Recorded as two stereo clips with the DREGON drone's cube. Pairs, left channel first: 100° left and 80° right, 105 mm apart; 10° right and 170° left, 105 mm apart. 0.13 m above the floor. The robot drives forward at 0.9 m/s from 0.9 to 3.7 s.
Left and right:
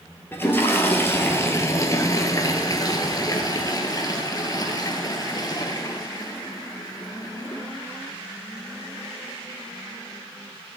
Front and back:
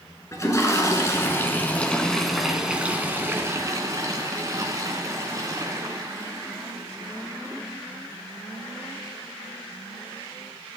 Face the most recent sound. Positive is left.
turn(degrees=125)